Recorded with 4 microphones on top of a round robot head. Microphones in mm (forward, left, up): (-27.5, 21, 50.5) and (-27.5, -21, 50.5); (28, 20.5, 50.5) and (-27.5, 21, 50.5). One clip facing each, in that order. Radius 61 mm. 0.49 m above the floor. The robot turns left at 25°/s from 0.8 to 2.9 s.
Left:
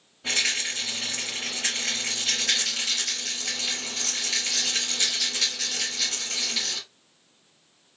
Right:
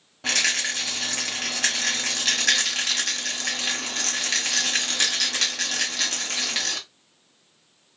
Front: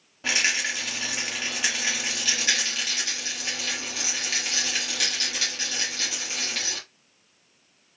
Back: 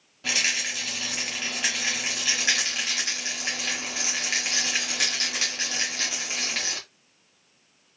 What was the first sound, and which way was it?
A rattle, 65° right.